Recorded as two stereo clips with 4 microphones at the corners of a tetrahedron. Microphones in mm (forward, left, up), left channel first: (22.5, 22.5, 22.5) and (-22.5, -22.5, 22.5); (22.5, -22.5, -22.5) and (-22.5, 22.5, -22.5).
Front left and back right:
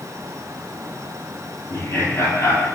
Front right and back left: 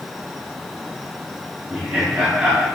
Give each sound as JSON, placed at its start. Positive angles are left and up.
{"t": 1.7, "sound": "laughter", "azimuth_deg": 55, "distance_m": 2.5}